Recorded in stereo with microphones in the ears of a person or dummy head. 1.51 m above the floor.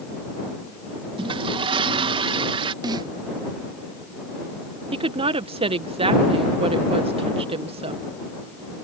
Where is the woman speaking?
25° right (ahead or behind).